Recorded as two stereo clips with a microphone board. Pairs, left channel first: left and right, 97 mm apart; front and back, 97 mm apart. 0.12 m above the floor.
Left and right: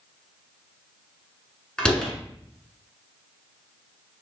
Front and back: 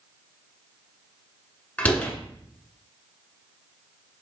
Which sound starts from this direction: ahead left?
A door slam, at 1.8 s.